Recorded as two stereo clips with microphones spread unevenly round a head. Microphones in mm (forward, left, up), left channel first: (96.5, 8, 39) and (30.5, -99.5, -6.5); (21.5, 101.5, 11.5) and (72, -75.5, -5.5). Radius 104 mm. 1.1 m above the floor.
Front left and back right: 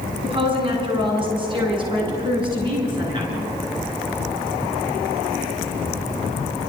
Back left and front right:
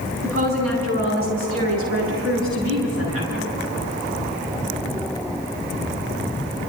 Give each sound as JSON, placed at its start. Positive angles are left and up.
{"t": 0.2, "sound": "a woman speaking", "azimuth_deg": -75, "distance_m": 10.0}